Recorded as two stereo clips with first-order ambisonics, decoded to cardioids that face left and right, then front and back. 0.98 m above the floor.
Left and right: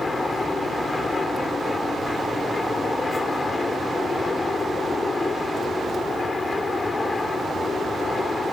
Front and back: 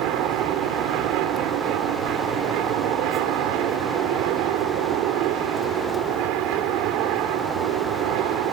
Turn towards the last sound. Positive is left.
turn(degrees=165)